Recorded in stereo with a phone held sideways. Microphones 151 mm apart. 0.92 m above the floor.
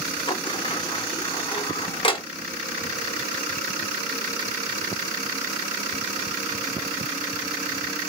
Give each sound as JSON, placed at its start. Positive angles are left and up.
{"t": 0.3, "sound": "a sliding door", "side_deg": 35, "distance_m": 0.6}